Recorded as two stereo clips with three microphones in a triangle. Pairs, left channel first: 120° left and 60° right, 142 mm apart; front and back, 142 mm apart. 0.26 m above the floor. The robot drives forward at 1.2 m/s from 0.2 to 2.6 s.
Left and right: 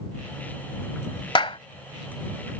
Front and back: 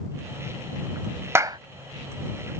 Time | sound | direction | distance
1.4 | a clap | 120° left | ?